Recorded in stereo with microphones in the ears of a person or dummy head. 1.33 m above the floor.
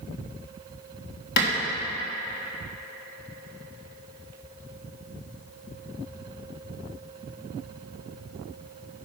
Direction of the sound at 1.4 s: 65° left (ahead or behind).